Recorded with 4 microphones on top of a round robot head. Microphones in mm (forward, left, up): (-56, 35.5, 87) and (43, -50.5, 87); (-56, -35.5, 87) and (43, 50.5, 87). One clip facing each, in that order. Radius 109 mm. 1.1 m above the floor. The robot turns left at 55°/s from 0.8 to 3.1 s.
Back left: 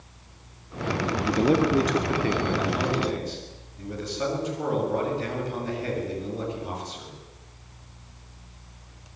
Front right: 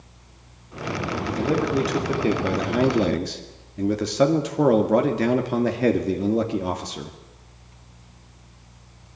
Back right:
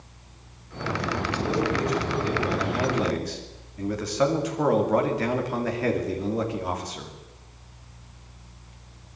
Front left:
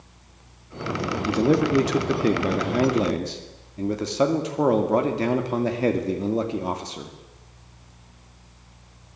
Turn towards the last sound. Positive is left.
turn(degrees=-25)